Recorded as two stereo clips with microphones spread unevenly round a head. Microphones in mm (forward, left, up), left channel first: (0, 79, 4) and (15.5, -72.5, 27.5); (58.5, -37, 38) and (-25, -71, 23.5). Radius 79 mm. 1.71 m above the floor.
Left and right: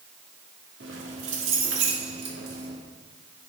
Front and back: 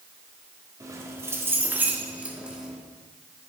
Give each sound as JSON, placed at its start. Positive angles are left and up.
{"t": 0.8, "sound": "keys jangling", "azimuth_deg": -100, "distance_m": 3.0}